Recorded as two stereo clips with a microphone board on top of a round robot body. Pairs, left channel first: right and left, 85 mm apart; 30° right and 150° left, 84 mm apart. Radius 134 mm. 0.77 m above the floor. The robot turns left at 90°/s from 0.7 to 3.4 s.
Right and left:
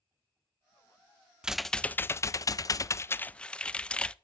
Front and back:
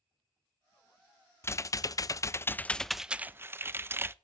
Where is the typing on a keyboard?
15° left, 0.5 m; by 4.1 s 160° right, 0.5 m.